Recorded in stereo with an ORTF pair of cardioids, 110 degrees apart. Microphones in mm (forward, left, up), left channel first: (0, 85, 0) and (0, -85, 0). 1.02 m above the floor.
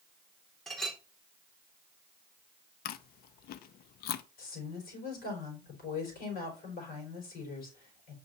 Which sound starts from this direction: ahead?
A clink, at 0.7 s.